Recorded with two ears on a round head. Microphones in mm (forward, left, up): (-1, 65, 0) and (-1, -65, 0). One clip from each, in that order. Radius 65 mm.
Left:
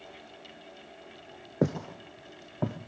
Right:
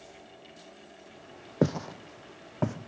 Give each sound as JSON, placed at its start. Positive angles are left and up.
{"t": 1.6, "sound": "footsteps", "side_deg": -25, "distance_m": 0.8}